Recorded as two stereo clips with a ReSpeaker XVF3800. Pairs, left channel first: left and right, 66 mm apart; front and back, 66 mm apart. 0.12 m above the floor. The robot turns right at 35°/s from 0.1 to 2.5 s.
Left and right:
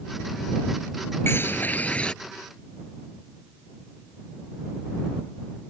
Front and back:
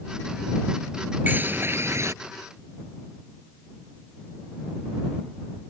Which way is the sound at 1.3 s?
125° left.